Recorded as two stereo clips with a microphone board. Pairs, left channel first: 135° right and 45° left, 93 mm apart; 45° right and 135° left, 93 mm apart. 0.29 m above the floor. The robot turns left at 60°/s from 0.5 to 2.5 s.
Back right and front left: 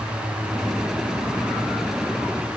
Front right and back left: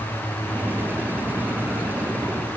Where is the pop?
I don't hear a pop.